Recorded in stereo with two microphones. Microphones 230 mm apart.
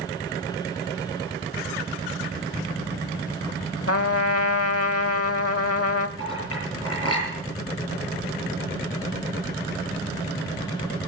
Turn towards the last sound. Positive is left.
turn(degrees=80)